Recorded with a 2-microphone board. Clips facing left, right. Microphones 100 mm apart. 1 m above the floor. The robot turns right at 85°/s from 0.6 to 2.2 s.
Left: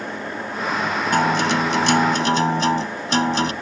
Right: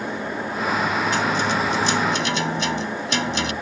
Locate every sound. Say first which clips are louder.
1.1 s a guitar: left 3 dB; 50° left; by 3.5 s 140° left